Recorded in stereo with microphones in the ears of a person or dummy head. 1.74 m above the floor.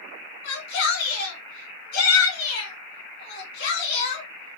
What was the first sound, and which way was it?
A shout, 65° left (ahead or behind).